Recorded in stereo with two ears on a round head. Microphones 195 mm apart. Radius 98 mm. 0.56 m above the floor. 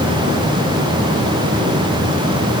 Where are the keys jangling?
No keys jangling in this recording.